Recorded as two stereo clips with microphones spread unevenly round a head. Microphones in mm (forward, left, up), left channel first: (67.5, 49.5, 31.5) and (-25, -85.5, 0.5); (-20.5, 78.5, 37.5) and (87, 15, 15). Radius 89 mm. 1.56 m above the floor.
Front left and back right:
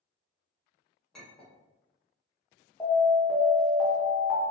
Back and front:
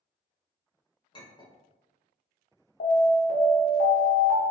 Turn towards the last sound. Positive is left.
turn(degrees=140)